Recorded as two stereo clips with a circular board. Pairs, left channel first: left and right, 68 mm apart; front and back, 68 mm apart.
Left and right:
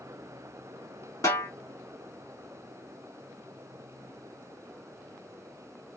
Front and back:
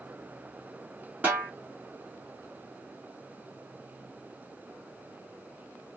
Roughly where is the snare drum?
Behind left.